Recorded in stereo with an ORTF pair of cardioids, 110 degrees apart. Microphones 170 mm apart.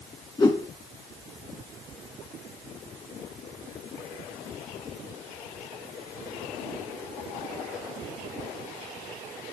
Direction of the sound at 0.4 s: 20° left.